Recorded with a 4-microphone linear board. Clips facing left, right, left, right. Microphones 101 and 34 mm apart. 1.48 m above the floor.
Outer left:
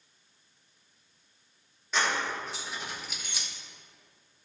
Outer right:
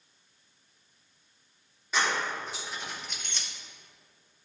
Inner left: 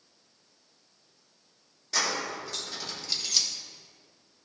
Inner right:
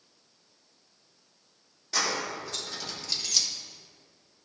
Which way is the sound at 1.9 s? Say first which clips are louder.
Even, even; centre (ahead or behind).